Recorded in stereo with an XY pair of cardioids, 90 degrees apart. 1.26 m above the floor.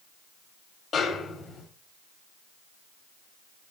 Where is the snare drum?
65° left, 2 m.